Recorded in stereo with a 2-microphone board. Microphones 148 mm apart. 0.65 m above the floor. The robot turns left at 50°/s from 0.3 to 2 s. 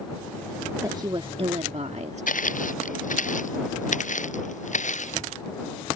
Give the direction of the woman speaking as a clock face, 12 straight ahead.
1 o'clock.